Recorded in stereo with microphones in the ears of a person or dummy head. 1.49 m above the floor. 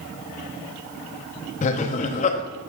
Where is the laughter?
40° left (ahead or behind), 0.8 m.